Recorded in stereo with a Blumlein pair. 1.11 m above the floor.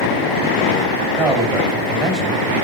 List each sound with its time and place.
1.2 s a man speaking: 20° right, 7 m